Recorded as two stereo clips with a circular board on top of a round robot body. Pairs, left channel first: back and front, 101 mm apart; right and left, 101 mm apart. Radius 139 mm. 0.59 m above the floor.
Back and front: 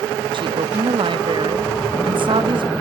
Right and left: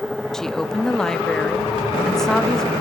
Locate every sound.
0.3 s a woman speaking: 5° right, 1.1 m